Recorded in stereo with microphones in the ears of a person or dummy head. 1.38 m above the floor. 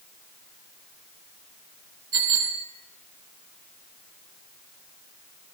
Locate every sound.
2.1 s a bicycle bell: 20° right (ahead or behind), 3.5 m